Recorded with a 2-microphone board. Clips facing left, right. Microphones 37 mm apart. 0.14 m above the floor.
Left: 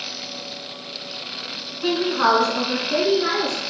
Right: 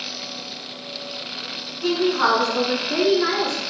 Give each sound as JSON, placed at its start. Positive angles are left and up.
{"t": 1.8, "sound": "a woman speaking", "side_deg": 15, "distance_m": 1.4}